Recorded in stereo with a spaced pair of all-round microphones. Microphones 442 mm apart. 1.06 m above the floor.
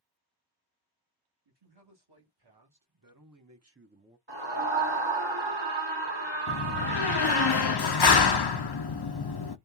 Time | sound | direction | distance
1.4 | a man speaking | 70° right (ahead or behind) | 1.9 m
4.3 | a scream | 80° right | 2 m
6.5 | a door slam | 65° left (ahead or behind) | 0.5 m